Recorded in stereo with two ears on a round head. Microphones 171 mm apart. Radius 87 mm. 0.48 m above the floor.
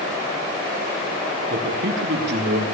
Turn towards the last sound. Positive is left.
turn(degrees=-60)  # may be behind; listen again after turning